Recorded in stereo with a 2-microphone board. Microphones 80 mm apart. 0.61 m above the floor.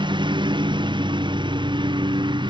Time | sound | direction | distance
0.0 | a lawn mower | 85° right | ?